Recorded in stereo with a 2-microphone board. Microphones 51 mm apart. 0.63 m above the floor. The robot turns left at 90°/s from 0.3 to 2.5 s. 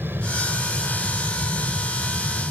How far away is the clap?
I don't hear a clap.